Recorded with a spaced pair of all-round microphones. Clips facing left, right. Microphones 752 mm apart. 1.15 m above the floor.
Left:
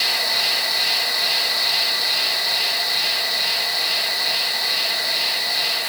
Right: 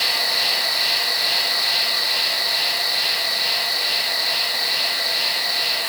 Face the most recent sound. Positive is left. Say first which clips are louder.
# even
turn(degrees=70)  # may be behind; listen again after turning